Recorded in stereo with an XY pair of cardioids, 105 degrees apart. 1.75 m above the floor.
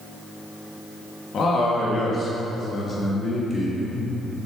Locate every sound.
1.3 s a man speaking: 55° left, 2 m; by 4.1 s 20° left, 3.5 m